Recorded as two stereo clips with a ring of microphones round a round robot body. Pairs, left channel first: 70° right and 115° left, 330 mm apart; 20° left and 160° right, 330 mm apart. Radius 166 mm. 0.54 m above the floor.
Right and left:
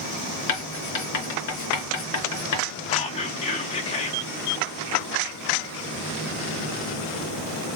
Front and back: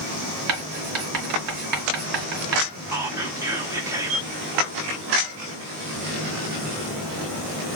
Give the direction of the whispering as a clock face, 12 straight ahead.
3 o'clock.